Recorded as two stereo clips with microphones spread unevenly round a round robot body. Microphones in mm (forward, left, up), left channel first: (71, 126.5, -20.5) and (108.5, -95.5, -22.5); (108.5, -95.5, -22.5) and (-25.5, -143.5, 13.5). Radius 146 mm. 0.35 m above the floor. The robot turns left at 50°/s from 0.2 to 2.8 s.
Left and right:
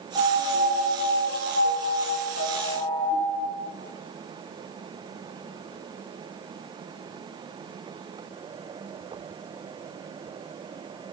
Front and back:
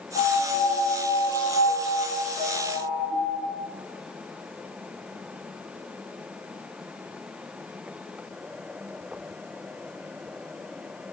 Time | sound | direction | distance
0.1 | a piano | 40° right | 2 m